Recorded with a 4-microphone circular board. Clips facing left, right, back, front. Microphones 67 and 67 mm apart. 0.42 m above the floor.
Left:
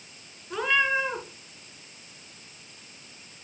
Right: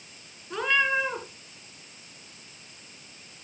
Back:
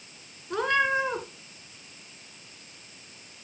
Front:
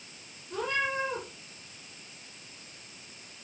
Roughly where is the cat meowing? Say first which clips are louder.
Even, back 6 dB; behind.